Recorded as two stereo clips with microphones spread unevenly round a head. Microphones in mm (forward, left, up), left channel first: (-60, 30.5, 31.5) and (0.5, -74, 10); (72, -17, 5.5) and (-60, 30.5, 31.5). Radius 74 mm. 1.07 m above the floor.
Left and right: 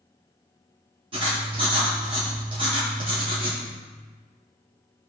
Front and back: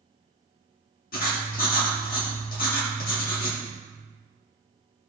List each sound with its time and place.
1.1 s writing: 10° right, 2 m